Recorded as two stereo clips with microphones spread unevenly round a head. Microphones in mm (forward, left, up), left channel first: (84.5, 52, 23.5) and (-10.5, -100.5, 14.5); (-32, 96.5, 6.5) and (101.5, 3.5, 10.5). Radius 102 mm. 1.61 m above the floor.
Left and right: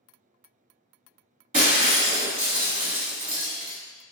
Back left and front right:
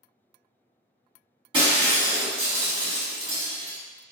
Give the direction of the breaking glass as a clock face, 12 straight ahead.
3 o'clock.